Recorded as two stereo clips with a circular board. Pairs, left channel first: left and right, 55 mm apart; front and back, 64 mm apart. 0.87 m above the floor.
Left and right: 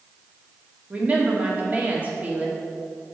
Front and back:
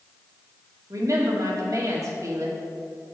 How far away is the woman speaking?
About 1.6 m.